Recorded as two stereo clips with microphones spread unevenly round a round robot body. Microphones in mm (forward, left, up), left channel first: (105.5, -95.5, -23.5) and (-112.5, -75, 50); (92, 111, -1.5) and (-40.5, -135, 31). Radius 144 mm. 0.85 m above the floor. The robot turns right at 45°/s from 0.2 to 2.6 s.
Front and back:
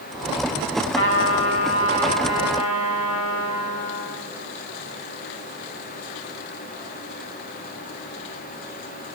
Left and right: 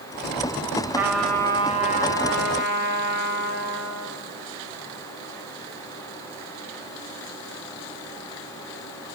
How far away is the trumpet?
About 5 m.